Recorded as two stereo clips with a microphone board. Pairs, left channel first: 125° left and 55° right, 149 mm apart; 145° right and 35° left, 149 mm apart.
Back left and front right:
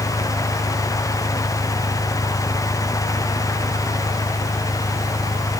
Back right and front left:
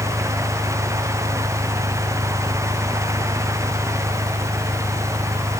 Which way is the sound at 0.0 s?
90° left.